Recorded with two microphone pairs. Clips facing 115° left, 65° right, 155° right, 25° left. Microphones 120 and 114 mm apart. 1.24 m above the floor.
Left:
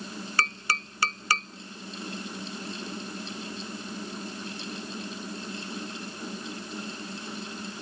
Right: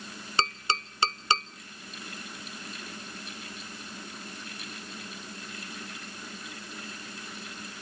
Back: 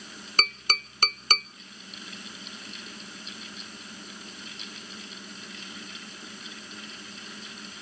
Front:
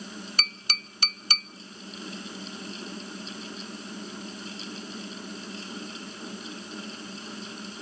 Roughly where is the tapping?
Behind right.